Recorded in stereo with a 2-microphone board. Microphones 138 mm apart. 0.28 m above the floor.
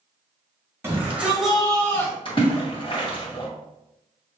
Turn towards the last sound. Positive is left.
turn(degrees=40)  # may be behind; listen again after turning